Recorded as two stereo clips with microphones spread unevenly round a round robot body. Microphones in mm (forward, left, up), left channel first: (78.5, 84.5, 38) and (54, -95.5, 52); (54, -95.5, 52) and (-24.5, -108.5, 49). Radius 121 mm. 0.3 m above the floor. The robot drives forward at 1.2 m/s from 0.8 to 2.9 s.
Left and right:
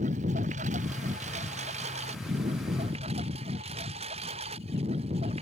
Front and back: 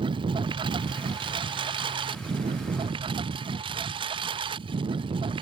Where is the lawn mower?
160° right; by 5.4 s 165° right.